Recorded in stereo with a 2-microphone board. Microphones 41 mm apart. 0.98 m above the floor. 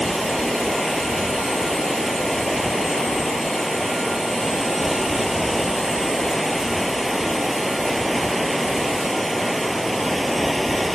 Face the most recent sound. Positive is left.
turn(degrees=0)  # may be behind; listen again after turning